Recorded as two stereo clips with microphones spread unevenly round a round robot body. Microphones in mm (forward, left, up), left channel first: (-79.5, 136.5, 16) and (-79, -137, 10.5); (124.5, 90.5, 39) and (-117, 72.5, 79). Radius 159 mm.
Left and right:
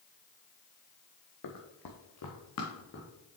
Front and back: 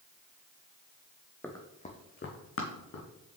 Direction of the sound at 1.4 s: 90° left.